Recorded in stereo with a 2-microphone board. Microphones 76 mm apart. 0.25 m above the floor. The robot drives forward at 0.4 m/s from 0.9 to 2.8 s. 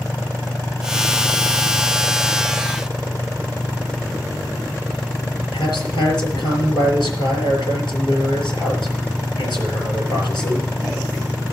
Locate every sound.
5.5 s a man speaking: 75° left (ahead or behind), 6 m